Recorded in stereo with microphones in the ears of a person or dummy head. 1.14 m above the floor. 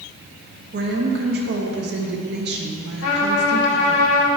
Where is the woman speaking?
55° right (ahead or behind), 1.0 m.